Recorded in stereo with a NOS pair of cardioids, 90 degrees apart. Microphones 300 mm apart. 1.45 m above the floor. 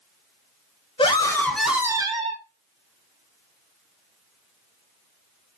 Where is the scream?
20° left, 1.2 m; by 2.4 s 25° right, 1.1 m.